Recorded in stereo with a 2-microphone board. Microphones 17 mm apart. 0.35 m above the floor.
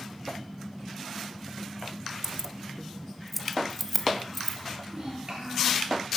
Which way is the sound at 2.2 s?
25° right (ahead or behind).